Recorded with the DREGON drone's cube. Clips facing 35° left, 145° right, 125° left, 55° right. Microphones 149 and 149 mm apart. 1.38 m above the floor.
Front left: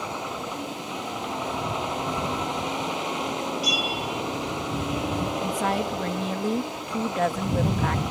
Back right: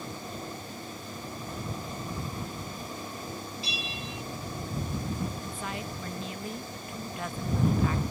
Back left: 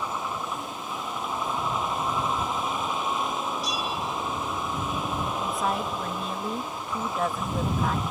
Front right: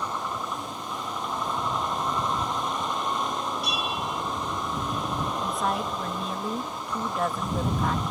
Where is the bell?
80° right.